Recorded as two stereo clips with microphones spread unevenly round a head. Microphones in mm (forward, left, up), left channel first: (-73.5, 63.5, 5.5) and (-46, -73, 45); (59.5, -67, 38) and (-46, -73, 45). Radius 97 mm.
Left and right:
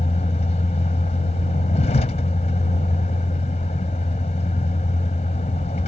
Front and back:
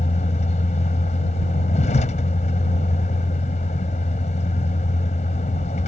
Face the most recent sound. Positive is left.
turn(degrees=40)